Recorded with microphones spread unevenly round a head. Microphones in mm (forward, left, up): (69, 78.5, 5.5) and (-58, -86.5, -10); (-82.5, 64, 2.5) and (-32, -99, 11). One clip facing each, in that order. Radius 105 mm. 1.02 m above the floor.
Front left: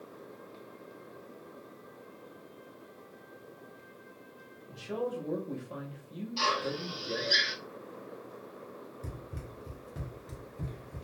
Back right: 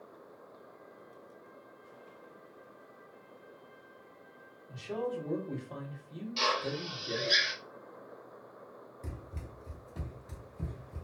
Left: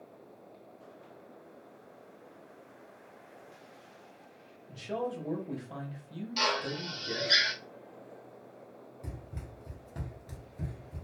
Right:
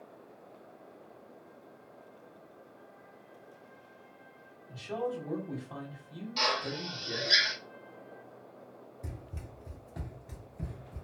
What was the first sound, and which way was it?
A man speaking, 125° left.